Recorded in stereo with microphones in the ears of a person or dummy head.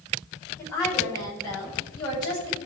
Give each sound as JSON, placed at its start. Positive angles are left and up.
{"t": 0.6, "sound": "a woman speaking", "side_deg": 20, "distance_m": 5.5}